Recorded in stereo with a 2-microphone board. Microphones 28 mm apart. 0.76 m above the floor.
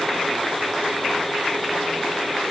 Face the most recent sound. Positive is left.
No sound to turn to.